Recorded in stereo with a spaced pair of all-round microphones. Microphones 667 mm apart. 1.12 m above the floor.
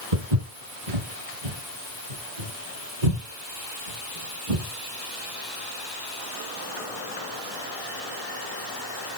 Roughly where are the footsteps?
Right.